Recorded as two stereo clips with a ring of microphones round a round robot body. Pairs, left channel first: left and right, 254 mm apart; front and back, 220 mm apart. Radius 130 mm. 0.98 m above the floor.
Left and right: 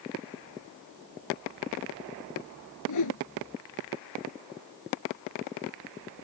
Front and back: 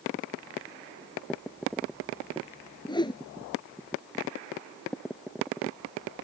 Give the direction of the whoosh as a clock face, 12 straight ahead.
10 o'clock.